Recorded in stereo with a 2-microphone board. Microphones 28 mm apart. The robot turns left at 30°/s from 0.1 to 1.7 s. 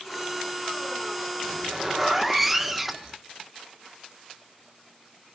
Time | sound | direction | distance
1.4 | a zipper | 5° left (ahead or behind) | 1.0 m